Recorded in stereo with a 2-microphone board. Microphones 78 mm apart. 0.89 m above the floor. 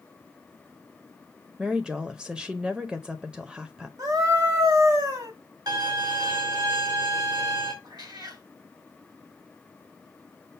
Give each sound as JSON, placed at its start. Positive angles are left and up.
{"t": 1.6, "sound": "a woman speaking", "side_deg": -10, "distance_m": 0.5}
{"t": 4.0, "sound": "a scream", "side_deg": -50, "distance_m": 1.8}
{"t": 5.7, "sound": "a violin", "side_deg": -55, "distance_m": 2.0}
{"t": 7.8, "sound": "a cat meowing", "side_deg": -55, "distance_m": 2.5}